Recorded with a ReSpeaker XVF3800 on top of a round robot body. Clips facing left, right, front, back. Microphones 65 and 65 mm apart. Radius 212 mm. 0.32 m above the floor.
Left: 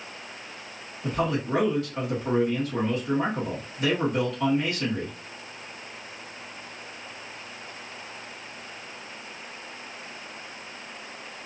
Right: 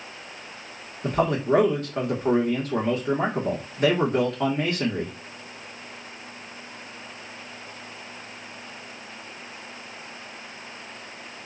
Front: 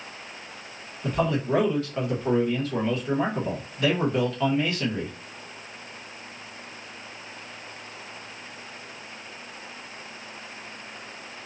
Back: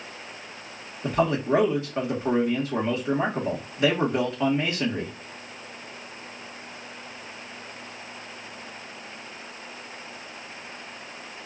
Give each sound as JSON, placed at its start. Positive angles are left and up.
{"t": 1.0, "sound": "a man speaking", "azimuth_deg": -115, "distance_m": 1.4}